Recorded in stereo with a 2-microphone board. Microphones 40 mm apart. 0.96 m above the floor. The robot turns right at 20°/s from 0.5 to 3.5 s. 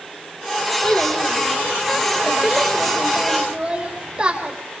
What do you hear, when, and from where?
0.8 s a child speaking: 155° left, 3.5 m; by 4.5 s 150° right, 3.5 m